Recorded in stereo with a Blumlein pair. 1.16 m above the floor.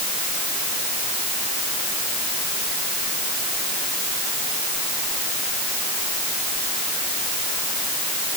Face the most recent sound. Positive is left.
No sound to turn to.